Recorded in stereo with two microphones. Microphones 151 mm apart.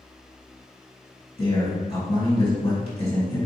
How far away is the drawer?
No drawer in this recording.